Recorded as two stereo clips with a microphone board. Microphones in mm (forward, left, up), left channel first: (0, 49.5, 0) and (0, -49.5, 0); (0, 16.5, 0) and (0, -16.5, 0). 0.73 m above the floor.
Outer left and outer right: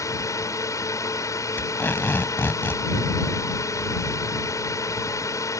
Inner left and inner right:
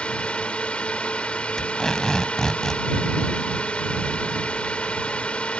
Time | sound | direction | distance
0.0 | a drone | 35° left (ahead or behind) | ?
1.6 | tape being pulled | 20° left (ahead or behind) | ?